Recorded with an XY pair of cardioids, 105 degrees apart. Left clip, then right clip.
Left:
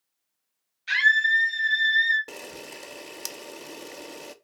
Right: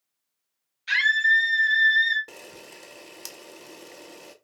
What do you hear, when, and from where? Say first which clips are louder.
0.9 s a scream: even; 5° right, 2.5 m
2.3 s a camera shutter: left 4 dB; 25° left, 0.6 m